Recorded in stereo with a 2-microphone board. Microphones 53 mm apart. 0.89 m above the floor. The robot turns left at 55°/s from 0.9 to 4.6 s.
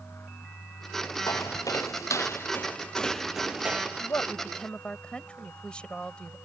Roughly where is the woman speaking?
Ahead left.